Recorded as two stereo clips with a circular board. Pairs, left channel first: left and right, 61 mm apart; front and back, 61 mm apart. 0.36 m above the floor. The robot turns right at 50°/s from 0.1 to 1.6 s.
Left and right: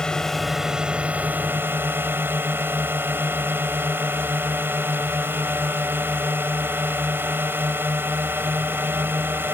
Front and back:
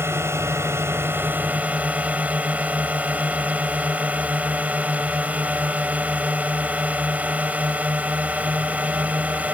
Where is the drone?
160° left; by 9.5 s 125° right.